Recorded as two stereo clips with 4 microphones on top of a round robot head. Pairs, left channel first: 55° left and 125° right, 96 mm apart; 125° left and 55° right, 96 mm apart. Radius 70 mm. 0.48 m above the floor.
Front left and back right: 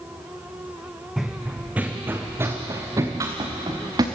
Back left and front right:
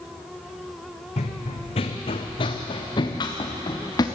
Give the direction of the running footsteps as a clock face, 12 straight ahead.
7 o'clock.